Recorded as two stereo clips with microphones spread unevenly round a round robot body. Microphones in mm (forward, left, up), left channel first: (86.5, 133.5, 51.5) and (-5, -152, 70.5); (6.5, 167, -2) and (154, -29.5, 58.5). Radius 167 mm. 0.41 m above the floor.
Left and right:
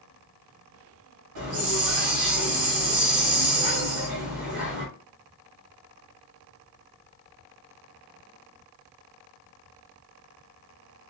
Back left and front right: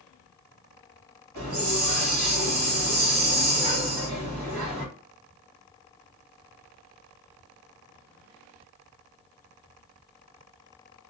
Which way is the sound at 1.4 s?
85° right.